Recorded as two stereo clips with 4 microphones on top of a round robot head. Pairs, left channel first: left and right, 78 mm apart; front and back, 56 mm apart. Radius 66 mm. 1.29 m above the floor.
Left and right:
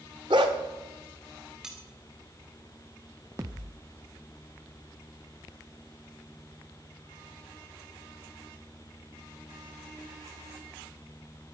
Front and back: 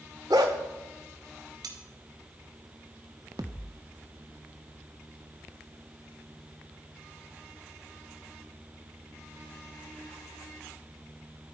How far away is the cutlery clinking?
About 2 m.